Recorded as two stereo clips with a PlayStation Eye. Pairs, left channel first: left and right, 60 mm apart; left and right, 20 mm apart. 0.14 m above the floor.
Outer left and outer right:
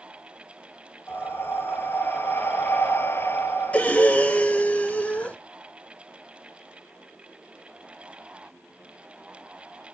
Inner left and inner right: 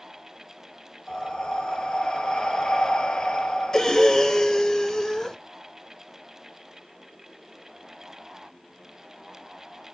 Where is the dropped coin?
No dropped coin in this recording.